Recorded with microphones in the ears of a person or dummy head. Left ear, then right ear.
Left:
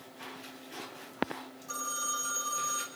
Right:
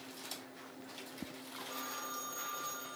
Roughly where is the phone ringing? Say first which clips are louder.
Left 8 dB; left.